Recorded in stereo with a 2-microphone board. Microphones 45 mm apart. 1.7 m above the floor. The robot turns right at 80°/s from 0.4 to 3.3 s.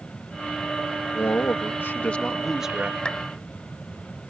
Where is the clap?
25° left (ahead or behind); by 3.2 s 15° left (ahead or behind).